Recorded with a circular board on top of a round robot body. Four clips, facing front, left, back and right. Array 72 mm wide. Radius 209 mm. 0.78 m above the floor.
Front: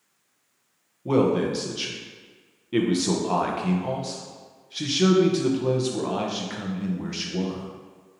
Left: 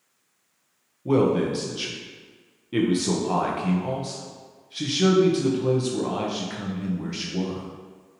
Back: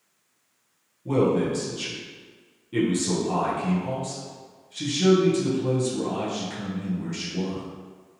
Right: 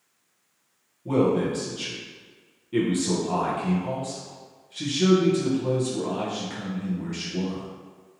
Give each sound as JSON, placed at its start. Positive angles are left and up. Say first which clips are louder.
{"t": 1.1, "sound": "a man speaking", "louder": "left 1 dB, front 1 dB", "azimuth_deg": 30, "distance_m": 0.8}